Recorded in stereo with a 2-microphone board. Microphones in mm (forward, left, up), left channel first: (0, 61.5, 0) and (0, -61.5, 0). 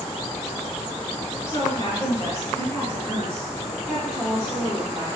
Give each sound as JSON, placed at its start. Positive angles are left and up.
{"t": 1.5, "sound": "a woman speaking", "side_deg": 35, "distance_m": 1.6}